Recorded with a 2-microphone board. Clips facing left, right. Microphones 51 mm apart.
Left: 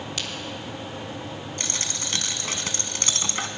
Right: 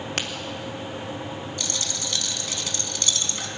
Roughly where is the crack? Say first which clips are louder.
Right 5 dB; right.